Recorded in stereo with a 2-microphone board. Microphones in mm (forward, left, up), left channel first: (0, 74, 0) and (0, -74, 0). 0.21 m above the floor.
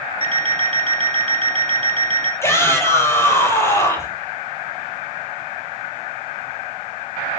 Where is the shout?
20° left (ahead or behind), 7 m.